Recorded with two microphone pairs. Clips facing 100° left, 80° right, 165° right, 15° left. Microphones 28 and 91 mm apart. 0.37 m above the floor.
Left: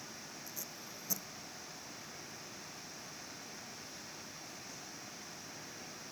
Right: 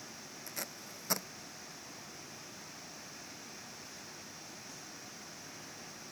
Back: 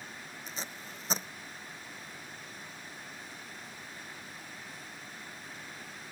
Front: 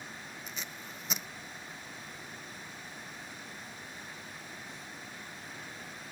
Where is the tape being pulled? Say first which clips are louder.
Right 3 dB, back 4 dB; 105° right.